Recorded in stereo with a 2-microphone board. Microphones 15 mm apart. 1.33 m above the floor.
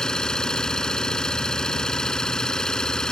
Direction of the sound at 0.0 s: 60° left (ahead or behind).